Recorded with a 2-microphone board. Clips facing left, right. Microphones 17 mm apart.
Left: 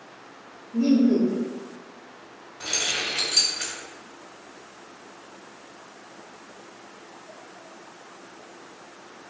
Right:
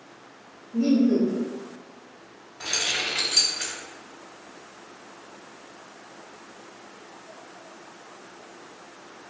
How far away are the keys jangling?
About 1.3 m.